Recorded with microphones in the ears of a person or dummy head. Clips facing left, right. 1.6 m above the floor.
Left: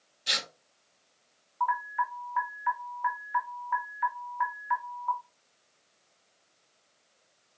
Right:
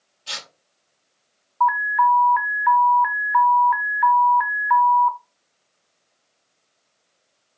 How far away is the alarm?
About 0.9 m.